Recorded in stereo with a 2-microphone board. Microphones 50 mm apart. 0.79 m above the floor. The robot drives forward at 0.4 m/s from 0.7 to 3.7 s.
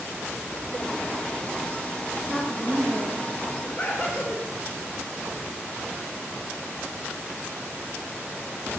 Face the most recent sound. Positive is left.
turn(degrees=25)  # may be behind; listen again after turning